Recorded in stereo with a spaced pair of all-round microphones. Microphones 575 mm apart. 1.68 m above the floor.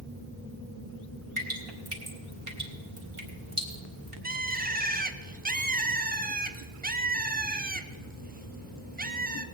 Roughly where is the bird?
Centre.